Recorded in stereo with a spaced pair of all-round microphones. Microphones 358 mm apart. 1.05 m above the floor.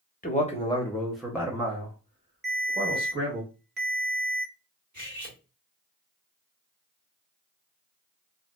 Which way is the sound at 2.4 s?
30° right (ahead or behind).